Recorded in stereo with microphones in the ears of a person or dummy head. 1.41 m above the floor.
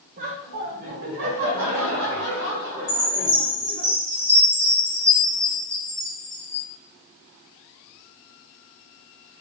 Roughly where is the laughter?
Right.